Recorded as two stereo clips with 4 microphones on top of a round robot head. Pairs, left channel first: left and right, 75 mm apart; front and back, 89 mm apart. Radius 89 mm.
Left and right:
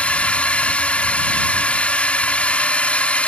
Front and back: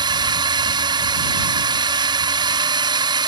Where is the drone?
160° left.